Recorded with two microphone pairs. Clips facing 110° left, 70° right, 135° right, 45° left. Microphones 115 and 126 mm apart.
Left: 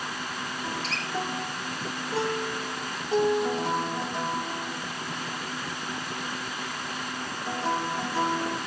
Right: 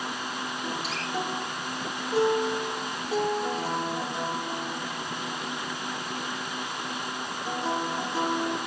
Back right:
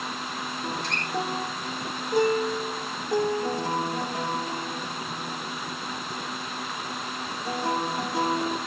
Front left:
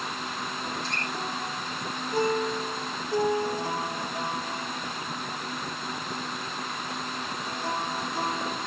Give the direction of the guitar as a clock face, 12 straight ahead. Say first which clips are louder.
Right 1 dB, back right 2 dB; 5 o'clock.